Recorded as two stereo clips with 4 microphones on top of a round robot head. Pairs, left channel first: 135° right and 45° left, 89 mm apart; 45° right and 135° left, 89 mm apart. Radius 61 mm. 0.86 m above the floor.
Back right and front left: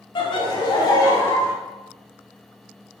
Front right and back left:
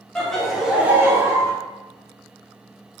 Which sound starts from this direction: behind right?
Laughter, at 0.1 s.